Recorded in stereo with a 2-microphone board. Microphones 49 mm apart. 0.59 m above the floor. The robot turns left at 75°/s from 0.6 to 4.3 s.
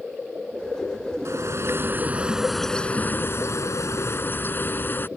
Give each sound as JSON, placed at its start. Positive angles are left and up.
{"t": 1.2, "sound": "a bird", "azimuth_deg": -80}